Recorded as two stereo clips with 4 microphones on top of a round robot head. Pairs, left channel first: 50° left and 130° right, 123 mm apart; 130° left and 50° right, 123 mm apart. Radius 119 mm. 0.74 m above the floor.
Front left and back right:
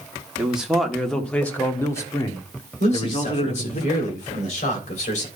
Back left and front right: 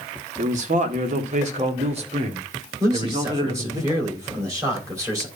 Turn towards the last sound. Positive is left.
turn(degrees=20)